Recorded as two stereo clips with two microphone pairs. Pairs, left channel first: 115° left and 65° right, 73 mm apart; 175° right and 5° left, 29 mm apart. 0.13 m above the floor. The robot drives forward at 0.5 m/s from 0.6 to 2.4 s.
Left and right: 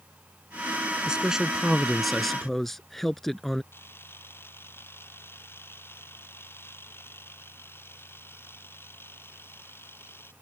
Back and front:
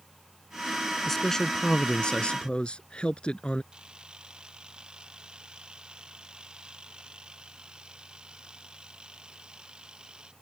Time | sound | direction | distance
1.1 | a man speaking | 115° right | ?
3.7 | a camera shutter | 60° left | ?